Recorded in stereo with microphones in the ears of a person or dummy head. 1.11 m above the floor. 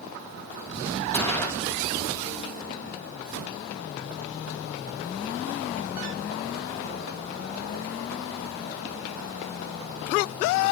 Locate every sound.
1.1 s a gunshot: 10° left (ahead or behind), 2.5 m